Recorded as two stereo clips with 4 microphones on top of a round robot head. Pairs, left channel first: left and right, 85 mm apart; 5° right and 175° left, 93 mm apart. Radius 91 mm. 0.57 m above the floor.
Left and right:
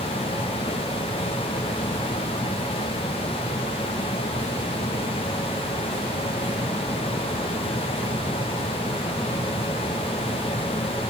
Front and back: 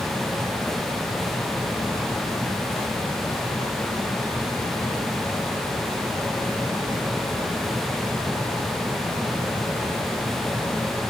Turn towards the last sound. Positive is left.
No sound to turn to.